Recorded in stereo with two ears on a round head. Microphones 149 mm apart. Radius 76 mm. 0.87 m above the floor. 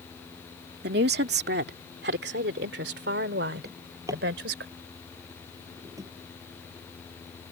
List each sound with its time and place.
0.8 s a woman speaking: 70° right (ahead or behind); by 4.7 s 80° right
3.6 s a drawer: 20° right (ahead or behind)